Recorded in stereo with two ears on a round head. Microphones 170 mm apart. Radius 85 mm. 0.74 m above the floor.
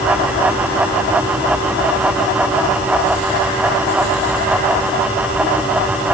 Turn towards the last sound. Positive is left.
No sound to turn to.